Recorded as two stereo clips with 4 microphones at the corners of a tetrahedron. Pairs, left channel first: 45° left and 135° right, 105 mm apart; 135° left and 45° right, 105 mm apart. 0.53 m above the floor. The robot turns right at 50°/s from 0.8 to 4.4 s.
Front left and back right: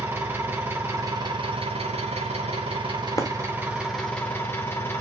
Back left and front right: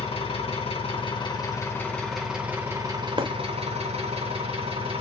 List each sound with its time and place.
0.0 s an engine running: 155° left, 2.0 m; by 5.0 s 25° right, 2.0 m
3.2 s breaking glass: 15° right, 0.8 m; by 3.3 s 5° right, 0.8 m